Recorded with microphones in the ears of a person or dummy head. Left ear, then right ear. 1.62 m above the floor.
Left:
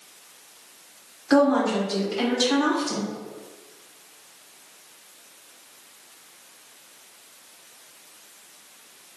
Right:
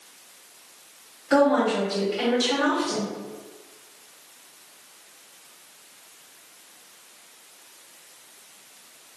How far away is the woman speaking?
About 1.6 m.